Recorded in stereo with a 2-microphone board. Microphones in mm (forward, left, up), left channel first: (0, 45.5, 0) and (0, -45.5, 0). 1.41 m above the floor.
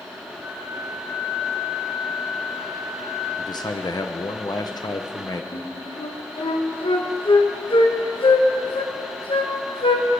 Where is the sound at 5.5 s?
70° left (ahead or behind), 1.1 m.